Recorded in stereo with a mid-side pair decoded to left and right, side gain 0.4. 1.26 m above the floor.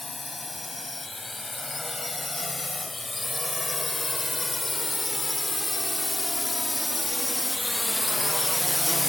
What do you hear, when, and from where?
0.0 s a drone: 20° left